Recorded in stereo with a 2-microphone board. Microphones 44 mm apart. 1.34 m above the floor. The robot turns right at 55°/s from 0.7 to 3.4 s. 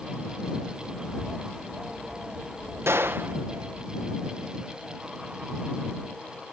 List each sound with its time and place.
1.0 s a bird: 130° left; by 3.9 s 100° right
2.9 s a gunshot: 75° right (ahead or behind); by 3.4 s 50° right (ahead or behind)